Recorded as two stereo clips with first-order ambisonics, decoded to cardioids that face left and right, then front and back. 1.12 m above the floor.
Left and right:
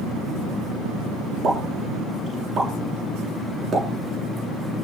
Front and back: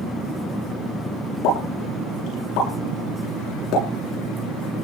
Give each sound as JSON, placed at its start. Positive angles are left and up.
{"t": 1.4, "sound": "a pop", "azimuth_deg": -25, "distance_m": 9.0}